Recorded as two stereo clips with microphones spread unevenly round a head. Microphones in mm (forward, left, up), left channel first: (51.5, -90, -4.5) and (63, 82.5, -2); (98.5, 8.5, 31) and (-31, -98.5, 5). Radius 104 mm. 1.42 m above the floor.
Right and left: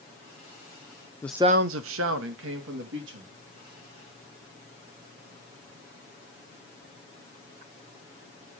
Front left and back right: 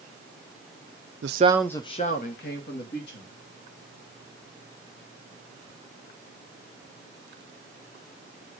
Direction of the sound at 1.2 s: 170° right.